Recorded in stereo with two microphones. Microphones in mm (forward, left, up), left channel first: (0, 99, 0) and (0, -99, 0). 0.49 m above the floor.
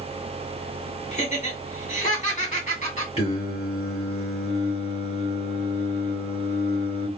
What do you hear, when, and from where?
1.1 s laughter: 40° left (ahead or behind), 1.9 m
3.2 s singing: 35° left (ahead or behind), 1.6 m